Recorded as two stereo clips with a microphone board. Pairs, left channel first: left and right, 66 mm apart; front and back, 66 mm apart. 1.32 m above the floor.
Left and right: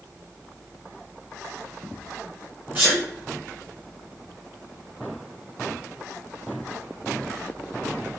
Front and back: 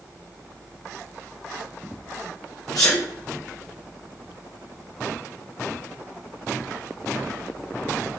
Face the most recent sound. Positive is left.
turn(degrees=-30)